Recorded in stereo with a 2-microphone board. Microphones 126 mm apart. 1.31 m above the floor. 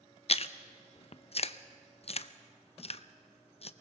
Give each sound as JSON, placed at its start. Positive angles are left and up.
{"t": 0.3, "sound": "chewing", "side_deg": 55, "distance_m": 0.6}